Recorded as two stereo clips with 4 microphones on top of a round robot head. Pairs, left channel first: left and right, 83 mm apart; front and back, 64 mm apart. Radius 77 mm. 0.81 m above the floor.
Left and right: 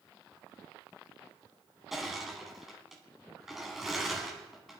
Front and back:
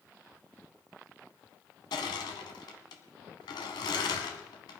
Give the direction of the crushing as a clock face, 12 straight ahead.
12 o'clock.